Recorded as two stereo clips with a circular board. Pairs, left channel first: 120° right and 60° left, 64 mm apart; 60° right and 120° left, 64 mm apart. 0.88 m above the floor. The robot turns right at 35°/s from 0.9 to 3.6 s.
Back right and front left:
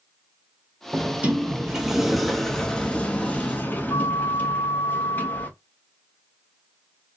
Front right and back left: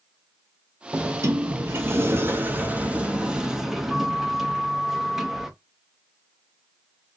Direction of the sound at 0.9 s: 105° left.